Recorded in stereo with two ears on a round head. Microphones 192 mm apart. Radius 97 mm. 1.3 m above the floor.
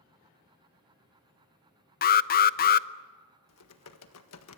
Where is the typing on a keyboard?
75° left (ahead or behind), 1.6 m.